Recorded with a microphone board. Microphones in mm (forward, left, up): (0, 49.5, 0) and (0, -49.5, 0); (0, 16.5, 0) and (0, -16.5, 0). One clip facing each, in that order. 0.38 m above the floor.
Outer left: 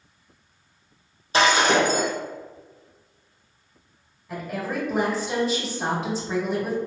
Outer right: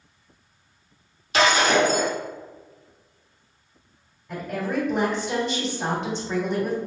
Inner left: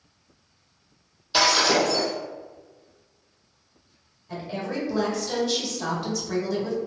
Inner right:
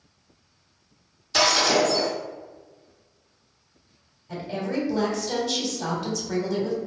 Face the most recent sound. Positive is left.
turn(degrees=5)  # may be behind; listen again after turning